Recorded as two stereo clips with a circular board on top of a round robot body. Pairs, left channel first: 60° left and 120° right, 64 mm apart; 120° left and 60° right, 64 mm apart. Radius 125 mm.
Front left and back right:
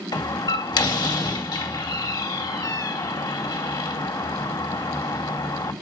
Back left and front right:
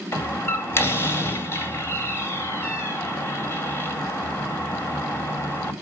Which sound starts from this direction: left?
A door slam, at 0.1 s.